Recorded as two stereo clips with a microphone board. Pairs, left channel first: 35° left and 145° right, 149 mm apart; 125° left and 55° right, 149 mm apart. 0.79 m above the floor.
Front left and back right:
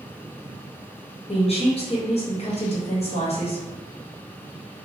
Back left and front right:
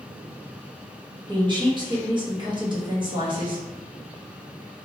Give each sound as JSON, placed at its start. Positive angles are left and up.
{"t": 1.3, "sound": "a woman speaking", "azimuth_deg": -5, "distance_m": 0.9}